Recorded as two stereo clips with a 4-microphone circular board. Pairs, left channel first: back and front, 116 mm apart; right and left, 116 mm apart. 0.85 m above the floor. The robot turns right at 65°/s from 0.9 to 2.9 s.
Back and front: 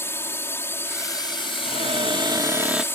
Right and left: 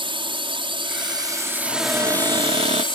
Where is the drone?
115° left; by 2.9 s 115° right.